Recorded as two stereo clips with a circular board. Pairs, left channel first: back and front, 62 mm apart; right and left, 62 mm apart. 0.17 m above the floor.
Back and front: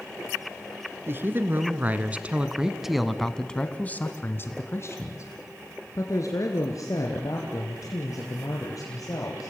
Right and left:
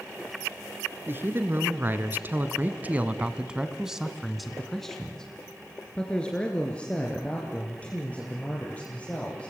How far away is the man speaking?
About 2 m.